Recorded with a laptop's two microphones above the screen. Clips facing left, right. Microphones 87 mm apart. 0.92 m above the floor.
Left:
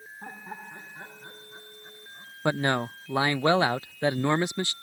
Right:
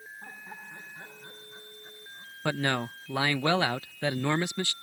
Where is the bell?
I don't hear a bell.